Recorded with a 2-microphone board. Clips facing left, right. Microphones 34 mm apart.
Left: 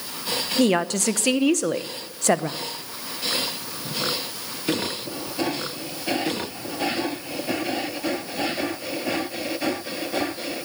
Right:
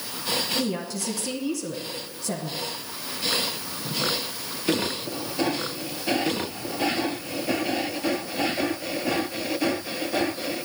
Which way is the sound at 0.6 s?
65° left (ahead or behind).